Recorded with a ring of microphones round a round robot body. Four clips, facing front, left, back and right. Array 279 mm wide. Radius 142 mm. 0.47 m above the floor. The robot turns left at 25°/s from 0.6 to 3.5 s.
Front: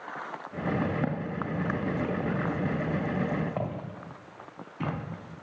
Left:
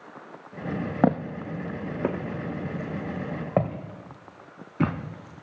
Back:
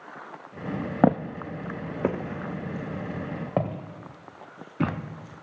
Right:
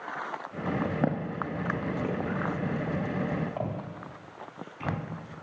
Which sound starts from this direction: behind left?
Footsteps, at 1.0 s.